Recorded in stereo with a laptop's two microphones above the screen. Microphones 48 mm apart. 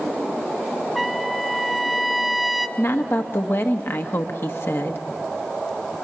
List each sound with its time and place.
0.9 s a trumpet: centre (ahead or behind), 0.5 m
2.8 s a woman speaking: 50° left (ahead or behind), 1.2 m